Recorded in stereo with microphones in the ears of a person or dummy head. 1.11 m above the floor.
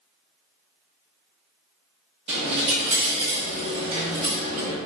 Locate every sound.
2.3 s a dropped coin: 30° right (ahead or behind), 0.9 m